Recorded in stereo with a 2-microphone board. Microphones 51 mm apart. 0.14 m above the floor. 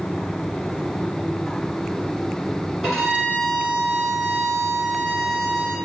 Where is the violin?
Centre (ahead or behind), 1.9 m.